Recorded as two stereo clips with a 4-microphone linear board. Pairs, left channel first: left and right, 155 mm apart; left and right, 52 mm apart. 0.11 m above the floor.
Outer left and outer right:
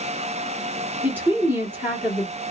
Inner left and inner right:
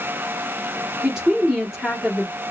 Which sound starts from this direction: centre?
A woman speaking, at 1.0 s.